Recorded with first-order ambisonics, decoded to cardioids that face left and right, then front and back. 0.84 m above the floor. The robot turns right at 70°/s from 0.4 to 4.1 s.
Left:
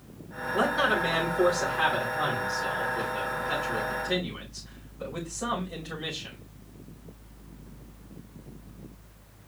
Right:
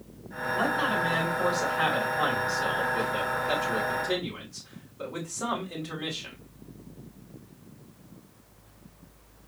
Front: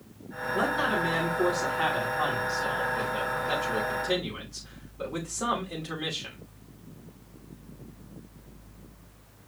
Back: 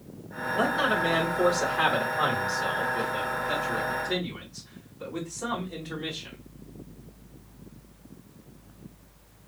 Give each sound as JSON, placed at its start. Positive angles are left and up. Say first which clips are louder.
{"t": 0.5, "sound": "a man speaking", "louder": "left 2 dB, back 2 dB", "azimuth_deg": 75, "distance_m": 4.5}